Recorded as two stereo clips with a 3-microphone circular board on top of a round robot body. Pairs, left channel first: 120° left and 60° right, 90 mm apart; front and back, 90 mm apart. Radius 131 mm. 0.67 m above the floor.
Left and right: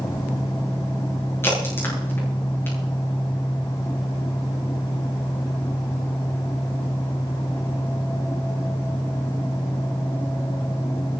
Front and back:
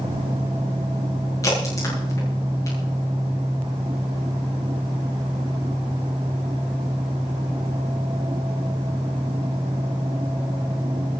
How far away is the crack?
About 9 m.